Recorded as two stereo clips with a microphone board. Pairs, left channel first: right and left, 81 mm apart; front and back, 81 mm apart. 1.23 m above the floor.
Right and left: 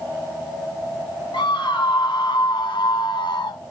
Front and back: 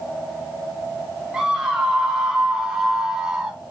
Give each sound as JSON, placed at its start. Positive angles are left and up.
{"t": 1.3, "sound": "a scream", "azimuth_deg": -100, "distance_m": 2.5}